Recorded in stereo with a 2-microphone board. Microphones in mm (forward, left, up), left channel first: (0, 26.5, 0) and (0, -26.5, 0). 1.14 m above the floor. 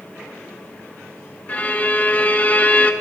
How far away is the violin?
About 0.8 m.